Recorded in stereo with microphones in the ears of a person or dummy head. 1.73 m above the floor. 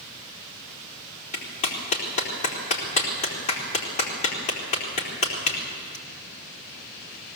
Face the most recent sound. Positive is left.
turn(degrees=40)  # may be behind; listen again after turning